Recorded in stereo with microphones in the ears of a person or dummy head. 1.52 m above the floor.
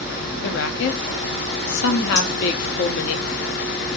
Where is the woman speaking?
75° left (ahead or behind), 0.5 m.